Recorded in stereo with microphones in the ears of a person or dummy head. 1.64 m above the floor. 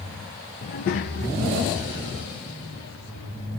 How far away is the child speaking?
About 0.6 m.